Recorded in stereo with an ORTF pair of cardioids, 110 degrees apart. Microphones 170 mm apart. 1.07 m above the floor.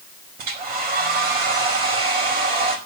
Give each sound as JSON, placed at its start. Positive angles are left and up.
{"t": 0.4, "sound": "a hair dryer", "azimuth_deg": -65, "distance_m": 5.0}